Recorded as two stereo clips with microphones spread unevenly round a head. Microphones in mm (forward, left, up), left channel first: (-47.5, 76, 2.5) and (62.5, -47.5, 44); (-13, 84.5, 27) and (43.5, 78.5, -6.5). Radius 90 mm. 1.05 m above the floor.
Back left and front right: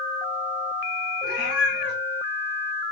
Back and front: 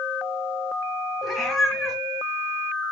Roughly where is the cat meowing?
Left.